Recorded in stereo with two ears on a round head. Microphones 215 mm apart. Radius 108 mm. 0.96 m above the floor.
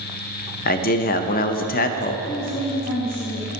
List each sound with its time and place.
0.7 s a man speaking: 40° left (ahead or behind), 0.5 m
2.3 s a woman speaking: 65° left (ahead or behind), 1.9 m